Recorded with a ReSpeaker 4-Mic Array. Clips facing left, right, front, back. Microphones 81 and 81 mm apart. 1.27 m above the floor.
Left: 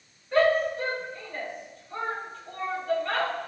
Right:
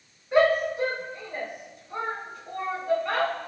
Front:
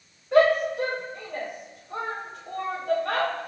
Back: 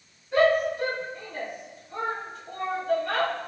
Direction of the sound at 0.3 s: 15° right.